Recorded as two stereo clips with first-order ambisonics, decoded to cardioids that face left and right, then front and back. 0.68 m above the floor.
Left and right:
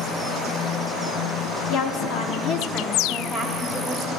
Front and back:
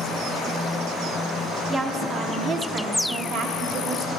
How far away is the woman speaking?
About 1.2 m.